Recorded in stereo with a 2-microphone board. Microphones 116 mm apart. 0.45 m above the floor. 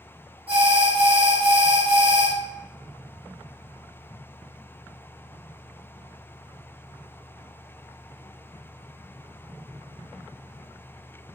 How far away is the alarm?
About 4 m.